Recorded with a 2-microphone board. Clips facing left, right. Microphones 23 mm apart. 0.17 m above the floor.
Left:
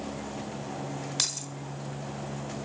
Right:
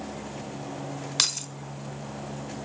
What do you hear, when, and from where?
1.2 s keys jangling: 30° right (ahead or behind), 0.9 m